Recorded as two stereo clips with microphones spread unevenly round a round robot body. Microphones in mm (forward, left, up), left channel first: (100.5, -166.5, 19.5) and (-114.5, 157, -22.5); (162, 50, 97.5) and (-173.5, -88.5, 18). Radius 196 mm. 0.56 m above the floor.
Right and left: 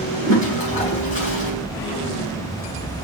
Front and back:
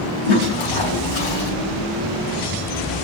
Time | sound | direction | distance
0.3 | a toilet flushing | 15° left | 5.5 m